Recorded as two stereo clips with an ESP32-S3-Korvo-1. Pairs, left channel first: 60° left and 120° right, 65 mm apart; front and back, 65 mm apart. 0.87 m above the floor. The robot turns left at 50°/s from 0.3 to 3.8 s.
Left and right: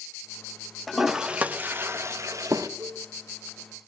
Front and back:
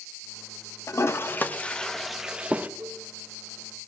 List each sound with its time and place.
0.9 s a toilet flushing: 30° right, 0.7 m; by 2.7 s 120° right, 0.7 m
2.8 s a cowbell: 115° right, 2 m; by 3.1 s 130° right, 2 m